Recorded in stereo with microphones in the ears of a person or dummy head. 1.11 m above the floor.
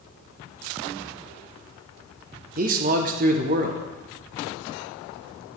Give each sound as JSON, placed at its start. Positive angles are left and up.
{"t": 2.6, "sound": "a man speaking", "side_deg": -35, "distance_m": 0.9}